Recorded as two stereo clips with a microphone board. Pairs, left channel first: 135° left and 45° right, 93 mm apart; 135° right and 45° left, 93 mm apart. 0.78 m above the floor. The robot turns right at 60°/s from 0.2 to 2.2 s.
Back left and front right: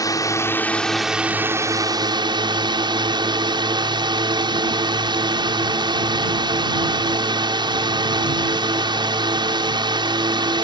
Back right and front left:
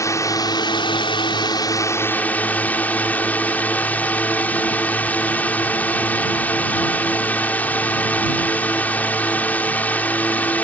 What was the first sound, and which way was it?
A drone, 175° left.